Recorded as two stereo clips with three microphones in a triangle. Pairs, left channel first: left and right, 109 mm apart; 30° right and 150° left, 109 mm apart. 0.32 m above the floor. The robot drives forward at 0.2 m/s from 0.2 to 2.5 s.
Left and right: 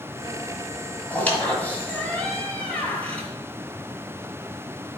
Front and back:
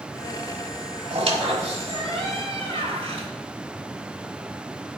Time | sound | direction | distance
1.1 | a squeak | 160° left | 1.4 m